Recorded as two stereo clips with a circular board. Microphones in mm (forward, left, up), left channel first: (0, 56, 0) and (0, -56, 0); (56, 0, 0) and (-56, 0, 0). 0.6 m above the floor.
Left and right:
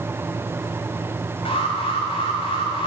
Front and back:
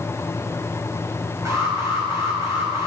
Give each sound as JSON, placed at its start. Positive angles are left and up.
{"t": 1.4, "sound": "an alarm", "azimuth_deg": 120, "distance_m": 5.0}